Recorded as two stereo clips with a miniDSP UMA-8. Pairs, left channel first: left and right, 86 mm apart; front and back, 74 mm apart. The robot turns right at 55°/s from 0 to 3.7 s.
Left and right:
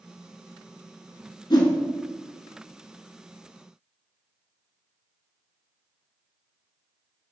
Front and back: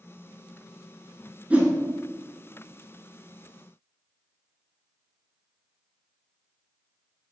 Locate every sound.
1.5 s a whoosh: 110° left, 0.7 m; by 1.7 s 125° left, 0.7 m